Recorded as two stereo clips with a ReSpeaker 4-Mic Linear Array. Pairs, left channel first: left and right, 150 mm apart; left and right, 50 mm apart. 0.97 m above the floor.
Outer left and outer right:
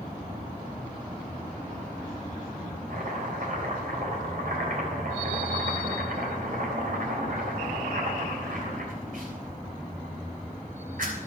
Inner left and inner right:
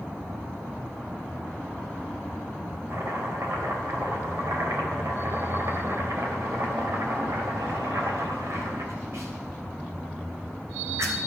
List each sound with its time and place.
2.9 s chopping: 70° right (ahead or behind), 3 m